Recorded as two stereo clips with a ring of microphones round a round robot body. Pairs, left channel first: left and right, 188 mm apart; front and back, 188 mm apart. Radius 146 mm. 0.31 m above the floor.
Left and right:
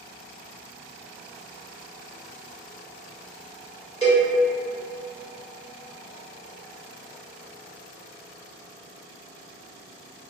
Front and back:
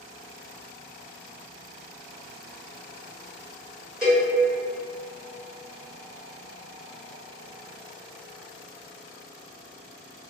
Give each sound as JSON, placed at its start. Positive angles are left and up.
{"t": 4.0, "sound": "a cowbell", "azimuth_deg": -95, "distance_m": 1.5}